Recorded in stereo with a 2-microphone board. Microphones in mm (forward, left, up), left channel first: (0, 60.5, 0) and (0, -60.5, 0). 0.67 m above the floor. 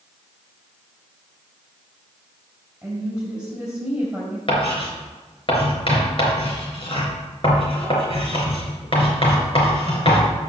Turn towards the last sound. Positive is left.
turn(degrees=45)  # may be behind; listen again after turning